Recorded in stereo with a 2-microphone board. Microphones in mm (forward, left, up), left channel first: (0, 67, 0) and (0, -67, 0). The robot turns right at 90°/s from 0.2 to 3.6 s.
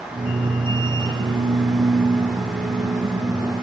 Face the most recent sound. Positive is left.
No sound to turn to.